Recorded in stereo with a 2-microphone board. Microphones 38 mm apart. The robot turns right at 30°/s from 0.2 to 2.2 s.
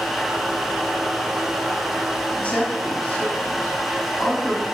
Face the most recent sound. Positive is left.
turn(degrees=25)  # may be behind; listen again after turning